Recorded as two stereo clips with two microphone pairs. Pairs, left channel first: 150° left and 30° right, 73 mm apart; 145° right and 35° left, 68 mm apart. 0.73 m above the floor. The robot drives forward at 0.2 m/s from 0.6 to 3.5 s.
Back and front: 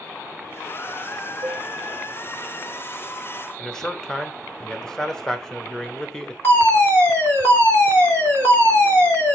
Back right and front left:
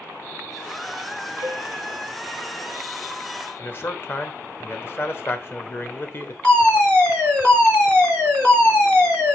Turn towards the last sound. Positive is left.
turn(degrees=145)